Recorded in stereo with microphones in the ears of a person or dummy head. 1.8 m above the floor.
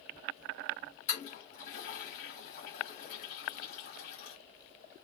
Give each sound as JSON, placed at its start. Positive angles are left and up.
{"t": 1.1, "sound": "a toilet flushing", "side_deg": 45, "distance_m": 1.2}